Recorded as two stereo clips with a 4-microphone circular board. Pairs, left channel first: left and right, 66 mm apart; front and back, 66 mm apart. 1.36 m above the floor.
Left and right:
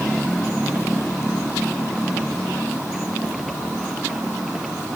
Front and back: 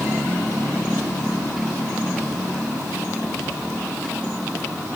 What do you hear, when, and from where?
Only background noise.